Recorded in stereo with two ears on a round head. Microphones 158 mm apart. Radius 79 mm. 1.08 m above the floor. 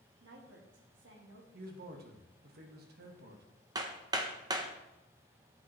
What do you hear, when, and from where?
0.2 s a woman speaking: 75° right (ahead or behind), 2 m
1.5 s a man speaking: 60° right (ahead or behind), 1.5 m
3.8 s hammering: 20° right (ahead or behind), 0.8 m